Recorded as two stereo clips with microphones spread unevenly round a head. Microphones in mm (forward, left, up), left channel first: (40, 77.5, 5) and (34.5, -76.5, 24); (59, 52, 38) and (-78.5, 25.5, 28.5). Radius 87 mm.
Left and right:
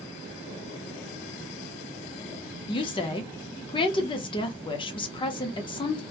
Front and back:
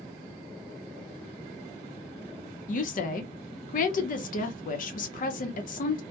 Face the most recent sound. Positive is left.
turn(degrees=35)